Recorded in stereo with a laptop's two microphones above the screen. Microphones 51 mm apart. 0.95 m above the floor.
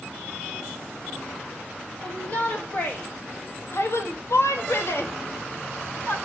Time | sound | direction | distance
2.0 | a shout | 30° left (ahead or behind) | 1.4 m